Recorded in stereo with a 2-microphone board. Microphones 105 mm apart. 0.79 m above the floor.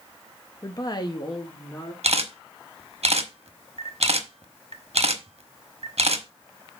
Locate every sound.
0.6 s a woman speaking: 30° left (ahead or behind), 0.8 m; by 1.9 s 40° left (ahead or behind), 1.8 m
2.0 s a camera shutter: 70° right (ahead or behind), 1.2 m